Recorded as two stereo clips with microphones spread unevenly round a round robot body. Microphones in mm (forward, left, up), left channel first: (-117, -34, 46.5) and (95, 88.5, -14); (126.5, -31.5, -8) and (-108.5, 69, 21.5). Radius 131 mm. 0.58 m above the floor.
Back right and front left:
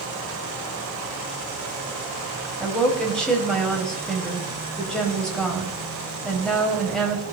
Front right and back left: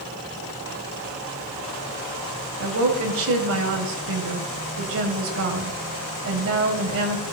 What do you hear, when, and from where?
2.6 s a woman speaking: 120° left, 3 m